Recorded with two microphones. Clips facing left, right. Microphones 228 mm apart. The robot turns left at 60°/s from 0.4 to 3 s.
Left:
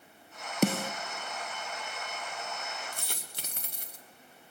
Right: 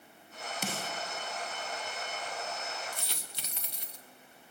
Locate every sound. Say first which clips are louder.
0.6 s a snare drum: left 13 dB; 65° left (ahead or behind), 0.6 m; by 0.9 s 45° left (ahead or behind), 0.6 m
2.9 s a dropped coin: even; 45° left (ahead or behind), 1.8 m; by 4.0 s 50° left (ahead or behind), 1.8 m